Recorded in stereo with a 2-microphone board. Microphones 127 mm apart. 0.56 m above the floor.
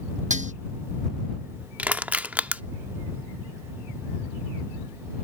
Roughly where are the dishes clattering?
Right.